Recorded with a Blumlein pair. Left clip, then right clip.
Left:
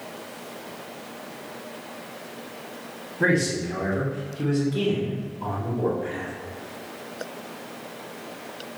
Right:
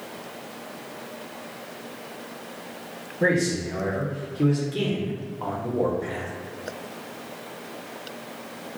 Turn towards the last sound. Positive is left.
turn(degrees=-65)